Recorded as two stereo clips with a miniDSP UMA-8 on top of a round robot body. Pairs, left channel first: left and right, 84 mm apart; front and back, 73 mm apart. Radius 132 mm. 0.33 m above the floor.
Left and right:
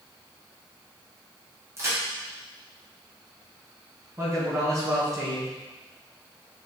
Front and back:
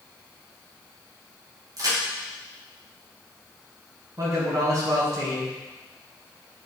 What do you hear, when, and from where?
1.8 s a crack: 145° right, 3 m
4.2 s a man speaking: 140° right, 3.5 m